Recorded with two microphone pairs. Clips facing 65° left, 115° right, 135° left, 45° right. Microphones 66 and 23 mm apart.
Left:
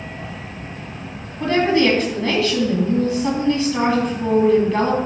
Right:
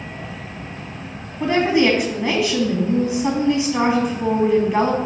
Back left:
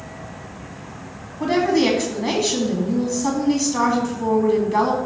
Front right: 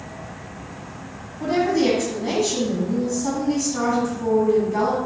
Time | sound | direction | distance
1.4 | a woman speaking | 175° left | 1.8 m